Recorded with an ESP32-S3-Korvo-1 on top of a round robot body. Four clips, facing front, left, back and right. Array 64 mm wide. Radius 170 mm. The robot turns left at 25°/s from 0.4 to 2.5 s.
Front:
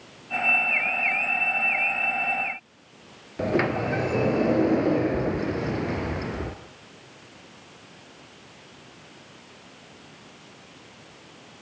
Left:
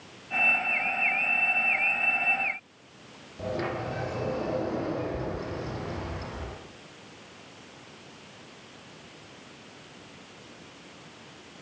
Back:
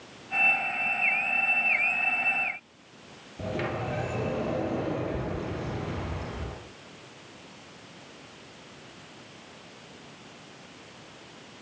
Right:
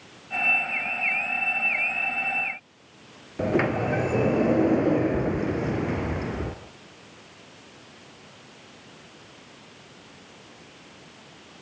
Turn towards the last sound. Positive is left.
turn(degrees=-45)